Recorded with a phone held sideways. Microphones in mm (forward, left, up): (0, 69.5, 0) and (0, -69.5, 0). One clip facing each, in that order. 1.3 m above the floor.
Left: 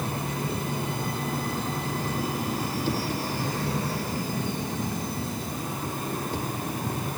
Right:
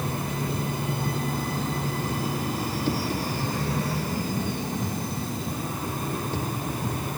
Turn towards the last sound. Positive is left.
No sound to turn to.